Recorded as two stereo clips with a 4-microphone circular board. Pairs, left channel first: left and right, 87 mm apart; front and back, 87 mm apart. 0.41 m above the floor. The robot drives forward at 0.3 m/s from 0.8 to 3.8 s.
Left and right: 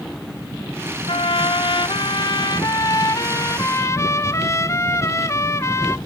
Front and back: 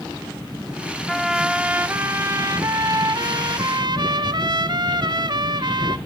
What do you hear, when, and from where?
1.1 s a trumpet: 90° left, 0.5 m; by 6.0 s 145° left, 1.0 m